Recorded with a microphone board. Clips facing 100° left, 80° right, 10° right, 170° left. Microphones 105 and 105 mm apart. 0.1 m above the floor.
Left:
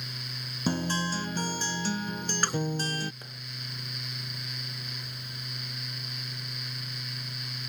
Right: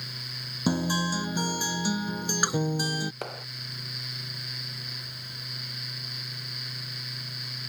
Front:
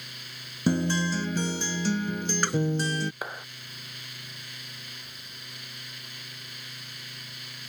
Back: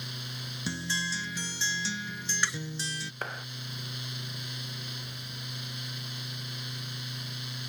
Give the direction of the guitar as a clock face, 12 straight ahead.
12 o'clock.